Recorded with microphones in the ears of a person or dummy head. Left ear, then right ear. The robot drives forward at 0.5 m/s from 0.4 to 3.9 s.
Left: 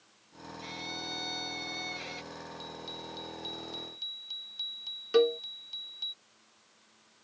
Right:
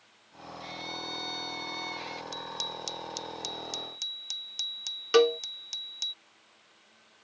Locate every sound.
0.6 s a violin: 10° right (ahead or behind)
2.3 s a bicycle bell: 75° right (ahead or behind); by 6.1 s 65° right (ahead or behind)
5.1 s a cowbell: 30° right (ahead or behind)